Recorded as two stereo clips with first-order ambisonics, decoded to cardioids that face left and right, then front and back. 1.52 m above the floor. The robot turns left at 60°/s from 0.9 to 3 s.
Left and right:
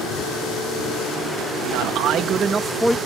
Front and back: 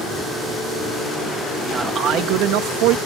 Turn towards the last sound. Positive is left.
turn(degrees=175)